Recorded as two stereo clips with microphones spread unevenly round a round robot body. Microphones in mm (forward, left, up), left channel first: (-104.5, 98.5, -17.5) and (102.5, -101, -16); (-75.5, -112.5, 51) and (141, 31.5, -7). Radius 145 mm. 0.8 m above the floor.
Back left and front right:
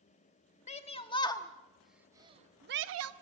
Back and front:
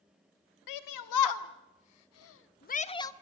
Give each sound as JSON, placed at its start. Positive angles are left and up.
{"t": 0.7, "sound": "a shout", "azimuth_deg": -155, "distance_m": 1.8}